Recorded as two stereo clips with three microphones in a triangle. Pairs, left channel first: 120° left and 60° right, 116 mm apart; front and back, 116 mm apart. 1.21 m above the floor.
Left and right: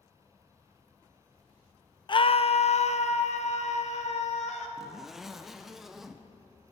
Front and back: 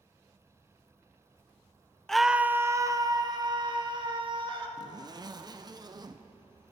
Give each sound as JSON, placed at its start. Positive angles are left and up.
{"t": 2.1, "sound": "a scream", "azimuth_deg": 85, "distance_m": 0.5}
{"t": 4.8, "sound": "a zipper", "azimuth_deg": -145, "distance_m": 0.8}